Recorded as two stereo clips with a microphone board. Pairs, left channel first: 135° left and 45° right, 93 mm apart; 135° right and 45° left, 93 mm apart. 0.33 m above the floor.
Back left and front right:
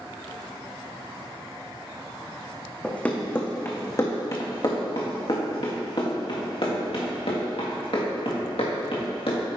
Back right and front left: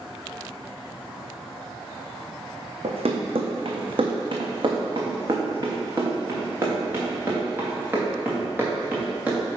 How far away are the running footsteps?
About 1.5 m.